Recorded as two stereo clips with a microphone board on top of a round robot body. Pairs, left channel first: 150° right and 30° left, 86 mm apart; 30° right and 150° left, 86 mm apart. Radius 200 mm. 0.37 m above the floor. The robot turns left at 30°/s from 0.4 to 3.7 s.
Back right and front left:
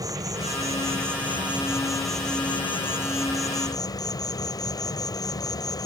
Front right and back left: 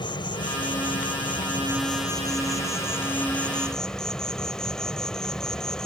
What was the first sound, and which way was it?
An insect, 15° right.